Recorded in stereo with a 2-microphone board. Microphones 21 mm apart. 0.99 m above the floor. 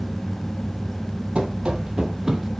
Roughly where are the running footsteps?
Right.